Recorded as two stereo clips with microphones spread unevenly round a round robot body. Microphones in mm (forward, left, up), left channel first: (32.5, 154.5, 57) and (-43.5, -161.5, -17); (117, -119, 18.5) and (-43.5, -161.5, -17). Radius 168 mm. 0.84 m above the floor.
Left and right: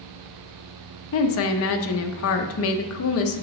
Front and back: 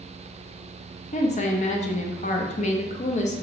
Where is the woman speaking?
45° left, 0.7 m.